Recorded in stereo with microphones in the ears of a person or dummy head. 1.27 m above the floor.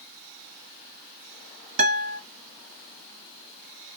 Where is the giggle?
I don't hear a giggle.